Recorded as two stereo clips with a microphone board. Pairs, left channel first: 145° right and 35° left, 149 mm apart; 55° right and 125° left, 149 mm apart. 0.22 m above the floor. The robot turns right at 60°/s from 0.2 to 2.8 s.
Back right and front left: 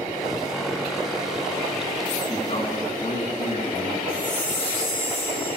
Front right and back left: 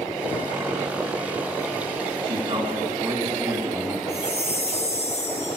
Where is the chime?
20° right, 5 m.